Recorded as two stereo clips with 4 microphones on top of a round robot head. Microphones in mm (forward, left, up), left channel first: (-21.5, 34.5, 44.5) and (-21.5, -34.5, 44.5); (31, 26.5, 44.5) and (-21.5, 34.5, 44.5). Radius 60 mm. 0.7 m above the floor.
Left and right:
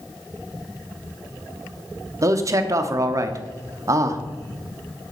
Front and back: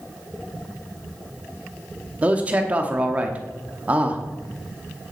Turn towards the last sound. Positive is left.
turn(degrees=-125)